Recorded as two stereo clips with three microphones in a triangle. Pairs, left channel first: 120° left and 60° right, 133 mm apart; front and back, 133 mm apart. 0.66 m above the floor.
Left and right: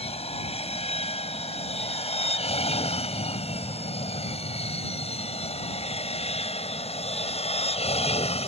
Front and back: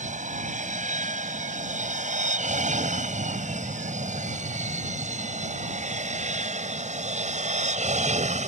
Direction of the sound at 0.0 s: 160° left.